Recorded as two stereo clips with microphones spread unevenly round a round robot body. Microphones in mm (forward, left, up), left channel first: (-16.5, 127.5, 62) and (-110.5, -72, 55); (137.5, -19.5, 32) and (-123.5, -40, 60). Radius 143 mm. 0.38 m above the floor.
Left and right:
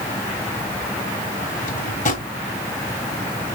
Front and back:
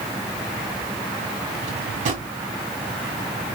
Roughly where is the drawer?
Behind left.